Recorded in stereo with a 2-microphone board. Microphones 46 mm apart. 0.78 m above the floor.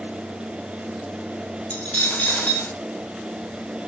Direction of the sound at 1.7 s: 35° left (ahead or behind).